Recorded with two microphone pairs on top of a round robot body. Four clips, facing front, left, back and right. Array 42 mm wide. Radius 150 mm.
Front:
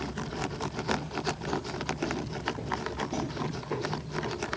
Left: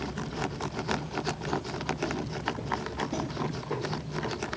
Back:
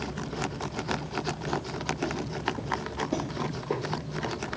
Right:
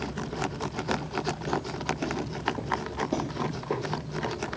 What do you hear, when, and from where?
0.2 s footsteps: 55° right, 1.8 m; by 4.3 s 155° right, 1.1 m